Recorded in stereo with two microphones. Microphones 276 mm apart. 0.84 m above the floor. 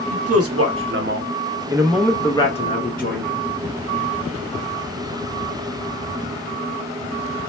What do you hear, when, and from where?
0.1 s a man speaking: 60° right (ahead or behind), 1.1 m; by 3.4 s 35° left (ahead or behind), 1.1 m